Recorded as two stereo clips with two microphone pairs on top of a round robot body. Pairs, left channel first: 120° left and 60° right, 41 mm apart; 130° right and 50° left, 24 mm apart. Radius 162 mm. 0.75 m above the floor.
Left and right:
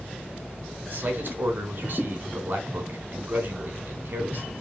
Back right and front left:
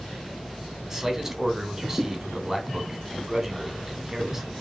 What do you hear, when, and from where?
0.9 s a man speaking: 30° right, 3 m